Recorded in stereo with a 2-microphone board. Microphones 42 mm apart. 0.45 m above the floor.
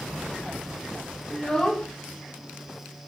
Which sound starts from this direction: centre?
A child speaking, at 1.3 s.